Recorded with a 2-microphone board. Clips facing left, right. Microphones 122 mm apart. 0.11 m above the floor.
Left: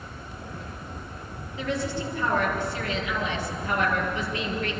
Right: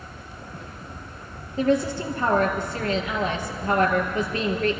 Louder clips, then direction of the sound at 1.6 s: Right 7 dB; 45° right (ahead or behind).